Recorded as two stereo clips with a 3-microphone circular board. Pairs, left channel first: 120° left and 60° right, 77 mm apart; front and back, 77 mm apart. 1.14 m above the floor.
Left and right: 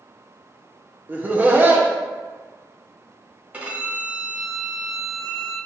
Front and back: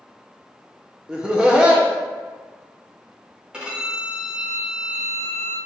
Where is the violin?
110° right, 1.0 m.